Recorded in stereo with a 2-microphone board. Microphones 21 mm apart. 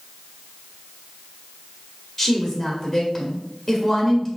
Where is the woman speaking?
25° left (ahead or behind), 1.6 m.